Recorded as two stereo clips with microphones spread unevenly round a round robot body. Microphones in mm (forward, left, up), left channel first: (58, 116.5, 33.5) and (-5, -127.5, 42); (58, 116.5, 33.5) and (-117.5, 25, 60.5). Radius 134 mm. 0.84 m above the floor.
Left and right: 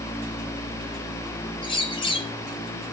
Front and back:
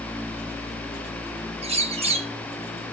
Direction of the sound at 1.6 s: 145° left.